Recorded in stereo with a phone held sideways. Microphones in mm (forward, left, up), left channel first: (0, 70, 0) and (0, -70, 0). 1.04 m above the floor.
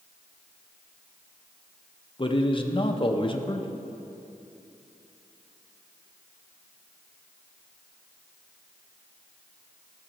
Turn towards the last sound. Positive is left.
turn(degrees=35)  # may be behind; listen again after turning